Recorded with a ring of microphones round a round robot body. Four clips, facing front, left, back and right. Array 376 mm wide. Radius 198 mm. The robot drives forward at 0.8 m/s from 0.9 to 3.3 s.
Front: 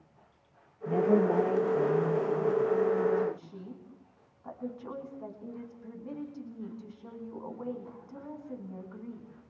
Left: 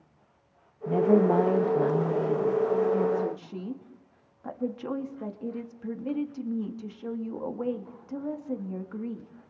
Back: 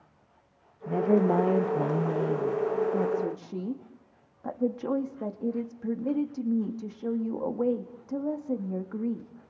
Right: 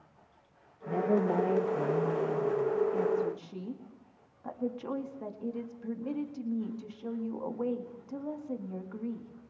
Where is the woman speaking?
90° left, 0.9 m; by 9.3 s 165° left, 2 m.